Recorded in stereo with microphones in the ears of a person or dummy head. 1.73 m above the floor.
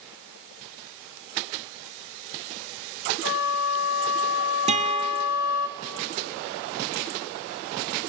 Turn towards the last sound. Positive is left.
turn(degrees=-30)  # may be behind; listen again after turning